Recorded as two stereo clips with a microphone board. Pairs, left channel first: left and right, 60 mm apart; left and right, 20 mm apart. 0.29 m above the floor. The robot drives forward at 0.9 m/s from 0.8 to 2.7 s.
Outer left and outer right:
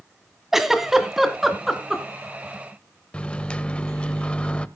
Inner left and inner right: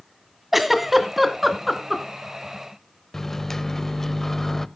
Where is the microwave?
20° left (ahead or behind), 0.7 m.